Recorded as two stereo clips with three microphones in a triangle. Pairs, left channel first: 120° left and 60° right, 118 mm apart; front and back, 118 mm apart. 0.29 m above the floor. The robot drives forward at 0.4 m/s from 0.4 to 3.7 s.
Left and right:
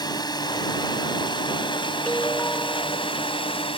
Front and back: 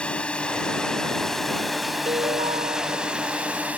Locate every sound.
0.0 s a drone: 80° left; by 3.8 s 105° left
2.1 s a ringtone: 165° right